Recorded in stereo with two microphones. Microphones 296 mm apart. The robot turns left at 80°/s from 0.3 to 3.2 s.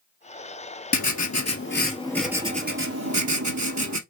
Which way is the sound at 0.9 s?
105° left.